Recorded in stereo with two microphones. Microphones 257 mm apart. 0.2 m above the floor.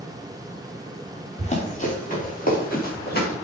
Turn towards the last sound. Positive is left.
turn(degrees=40)  # may be behind; listen again after turning